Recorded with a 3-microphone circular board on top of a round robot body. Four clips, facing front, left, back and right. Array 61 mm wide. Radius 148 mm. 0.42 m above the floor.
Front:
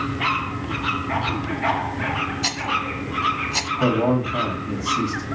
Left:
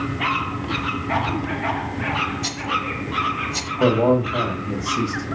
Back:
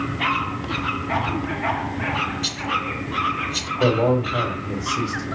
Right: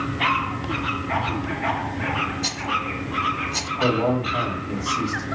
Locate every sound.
2.4 s a rattle: 5° left, 1.0 m
3.8 s a man speaking: 120° left, 3 m